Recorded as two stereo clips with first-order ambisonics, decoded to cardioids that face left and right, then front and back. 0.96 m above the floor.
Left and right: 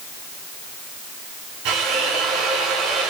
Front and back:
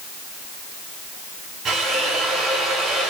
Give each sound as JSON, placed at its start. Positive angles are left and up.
{"t": 1.6, "sound": "a drill", "azimuth_deg": -110, "distance_m": 9.5}